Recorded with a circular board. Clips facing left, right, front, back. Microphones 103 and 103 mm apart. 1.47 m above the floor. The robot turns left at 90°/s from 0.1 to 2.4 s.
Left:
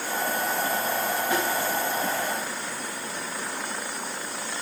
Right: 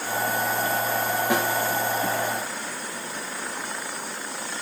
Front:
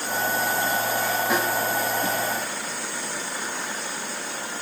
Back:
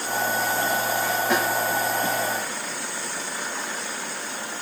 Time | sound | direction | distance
1.3 | a snare drum | 85° right | 9 m